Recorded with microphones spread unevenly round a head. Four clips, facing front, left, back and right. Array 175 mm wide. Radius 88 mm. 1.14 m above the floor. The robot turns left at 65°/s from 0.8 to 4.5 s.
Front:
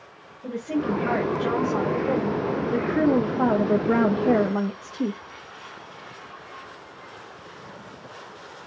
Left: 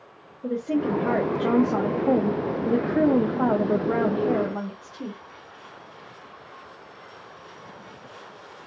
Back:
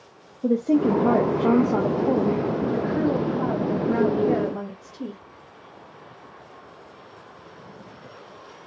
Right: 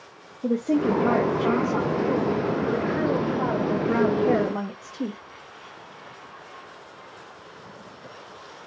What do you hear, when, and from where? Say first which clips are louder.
0.4 s a woman speaking: right 3 dB, back 7 dB; 145° right, 0.6 m; by 5.2 s 30° right, 0.6 m